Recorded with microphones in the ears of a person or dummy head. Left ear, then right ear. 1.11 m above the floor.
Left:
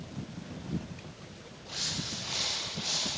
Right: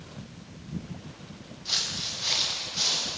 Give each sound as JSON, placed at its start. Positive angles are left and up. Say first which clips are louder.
{"t": 1.6, "sound": "footsteps", "louder": "right 6 dB", "side_deg": -75, "distance_m": 8.0}